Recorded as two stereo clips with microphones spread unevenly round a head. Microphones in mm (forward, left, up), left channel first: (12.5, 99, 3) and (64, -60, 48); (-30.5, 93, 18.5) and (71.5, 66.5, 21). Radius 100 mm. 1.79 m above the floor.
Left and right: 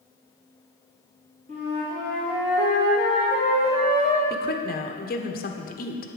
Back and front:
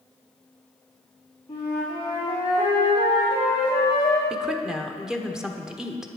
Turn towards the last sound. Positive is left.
turn(degrees=70)